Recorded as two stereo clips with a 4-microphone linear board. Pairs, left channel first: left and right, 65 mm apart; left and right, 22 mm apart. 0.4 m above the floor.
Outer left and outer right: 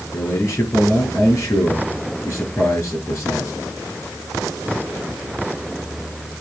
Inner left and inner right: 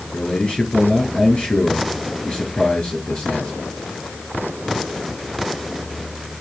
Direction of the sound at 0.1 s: 45° left (ahead or behind).